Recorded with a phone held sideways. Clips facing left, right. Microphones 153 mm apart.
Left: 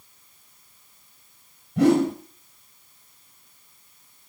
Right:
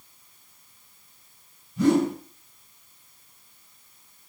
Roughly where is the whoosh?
Left.